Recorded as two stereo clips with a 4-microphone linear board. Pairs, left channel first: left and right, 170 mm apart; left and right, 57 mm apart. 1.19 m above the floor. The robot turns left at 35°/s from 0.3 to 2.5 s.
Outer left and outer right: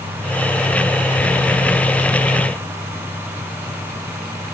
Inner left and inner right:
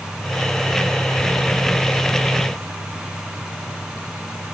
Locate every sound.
Only background noise.